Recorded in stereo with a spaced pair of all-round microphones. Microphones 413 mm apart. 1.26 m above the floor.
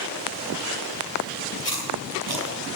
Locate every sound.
1.6 s chewing: 60° left (ahead or behind), 5.5 m